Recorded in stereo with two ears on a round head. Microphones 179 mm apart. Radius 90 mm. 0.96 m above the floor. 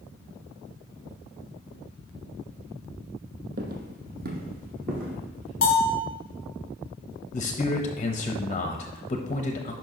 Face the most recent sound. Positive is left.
turn(degrees=30)  # may be behind; listen again after turning